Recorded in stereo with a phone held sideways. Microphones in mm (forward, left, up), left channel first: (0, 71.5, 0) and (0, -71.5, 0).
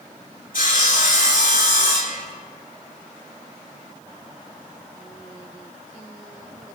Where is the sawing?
75° left (ahead or behind), 3 m.